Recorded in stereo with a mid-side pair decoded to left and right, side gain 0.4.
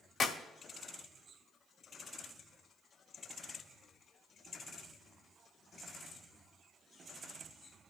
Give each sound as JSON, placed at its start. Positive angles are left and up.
{"t": 0.2, "sound": "a clap", "azimuth_deg": 70, "distance_m": 2.0}